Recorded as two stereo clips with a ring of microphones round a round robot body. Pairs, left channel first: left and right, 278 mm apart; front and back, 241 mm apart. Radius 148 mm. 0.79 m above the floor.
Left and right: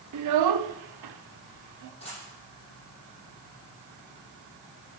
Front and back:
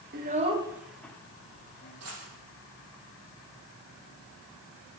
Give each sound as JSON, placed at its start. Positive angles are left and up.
{"t": 0.1, "sound": "a child speaking", "azimuth_deg": -125, "distance_m": 1.0}
{"t": 2.0, "sound": "a dropped coin", "azimuth_deg": 160, "distance_m": 7.0}